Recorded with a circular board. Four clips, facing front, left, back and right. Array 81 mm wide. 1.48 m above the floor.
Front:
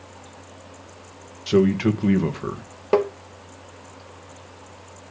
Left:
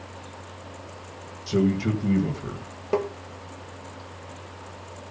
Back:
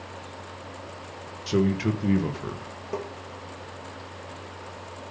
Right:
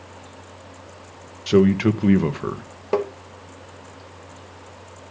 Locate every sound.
1.5 s a man speaking: 70° right, 1.5 m
2.9 s tapping: 20° right, 1.0 m